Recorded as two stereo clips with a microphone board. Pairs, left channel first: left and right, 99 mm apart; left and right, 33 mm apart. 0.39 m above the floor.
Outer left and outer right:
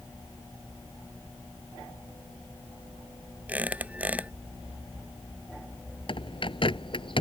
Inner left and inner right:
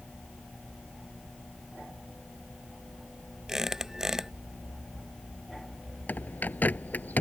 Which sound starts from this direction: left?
A bird, at 6.1 s.